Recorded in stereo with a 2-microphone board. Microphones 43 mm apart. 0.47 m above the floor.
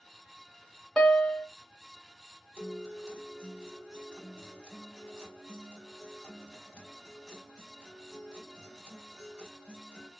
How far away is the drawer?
I don't hear a drawer.